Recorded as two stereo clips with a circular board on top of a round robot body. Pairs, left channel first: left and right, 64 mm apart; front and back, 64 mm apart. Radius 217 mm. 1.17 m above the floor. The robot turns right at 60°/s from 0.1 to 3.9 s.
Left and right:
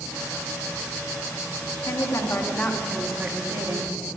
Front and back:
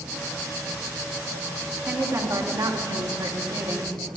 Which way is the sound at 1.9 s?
115° left.